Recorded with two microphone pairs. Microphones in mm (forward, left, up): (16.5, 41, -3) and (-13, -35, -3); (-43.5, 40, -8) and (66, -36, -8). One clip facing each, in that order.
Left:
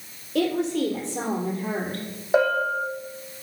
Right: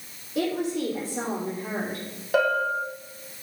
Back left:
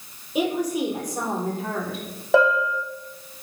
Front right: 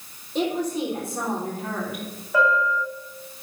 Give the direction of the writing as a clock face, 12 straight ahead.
I don't hear writing.